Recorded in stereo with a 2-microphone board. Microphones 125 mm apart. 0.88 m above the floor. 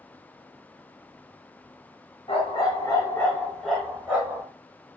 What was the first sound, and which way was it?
A dog barking, 45° left (ahead or behind).